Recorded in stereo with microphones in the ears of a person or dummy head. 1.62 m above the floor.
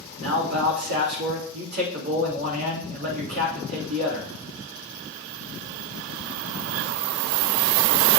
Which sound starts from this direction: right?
A man speaking, at 0.2 s.